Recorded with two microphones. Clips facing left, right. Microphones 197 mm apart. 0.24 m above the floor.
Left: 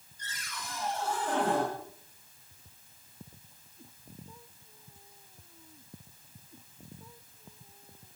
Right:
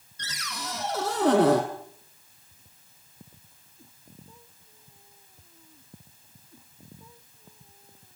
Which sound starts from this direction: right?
A cupboard door, at 0.2 s.